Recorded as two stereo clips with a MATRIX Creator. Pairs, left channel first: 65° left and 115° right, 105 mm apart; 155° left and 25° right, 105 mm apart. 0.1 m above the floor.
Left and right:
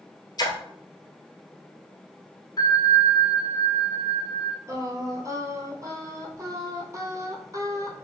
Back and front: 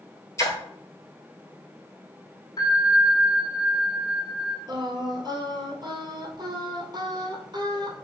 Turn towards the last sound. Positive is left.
turn(degrees=-60)